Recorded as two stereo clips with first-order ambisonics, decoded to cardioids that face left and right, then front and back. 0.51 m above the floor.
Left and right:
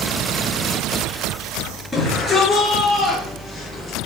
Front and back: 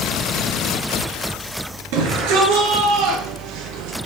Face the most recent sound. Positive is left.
turn(degrees=170)